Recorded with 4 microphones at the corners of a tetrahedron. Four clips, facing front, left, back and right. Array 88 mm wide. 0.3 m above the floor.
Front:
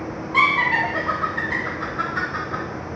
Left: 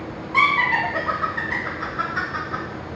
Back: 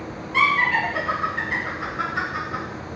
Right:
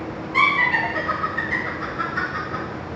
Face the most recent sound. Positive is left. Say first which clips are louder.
# even, front 1 dB
turn(degrees=55)